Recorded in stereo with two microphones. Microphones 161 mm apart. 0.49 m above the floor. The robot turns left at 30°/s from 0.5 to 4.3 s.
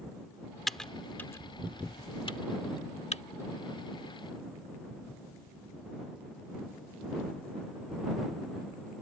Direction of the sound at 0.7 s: Centre (ahead or behind).